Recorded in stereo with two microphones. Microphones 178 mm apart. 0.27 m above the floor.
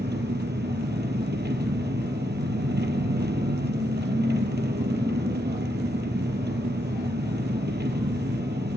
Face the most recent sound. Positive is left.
turn(degrees=-75)  # may be behind; listen again after turning